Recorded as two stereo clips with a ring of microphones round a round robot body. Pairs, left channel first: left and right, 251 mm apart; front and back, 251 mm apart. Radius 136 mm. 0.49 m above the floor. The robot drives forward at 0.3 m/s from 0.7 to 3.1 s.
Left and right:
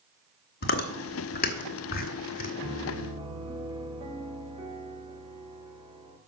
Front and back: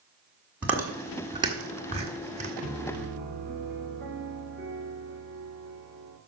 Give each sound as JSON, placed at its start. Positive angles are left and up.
{"t": 0.6, "sound": "chewing", "azimuth_deg": 100, "distance_m": 1.4}
{"t": 2.6, "sound": "a piano", "azimuth_deg": -145, "distance_m": 1.5}